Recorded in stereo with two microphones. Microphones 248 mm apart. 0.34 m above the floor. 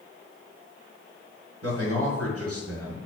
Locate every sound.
1.6 s a man speaking: 65° right (ahead or behind), 4 m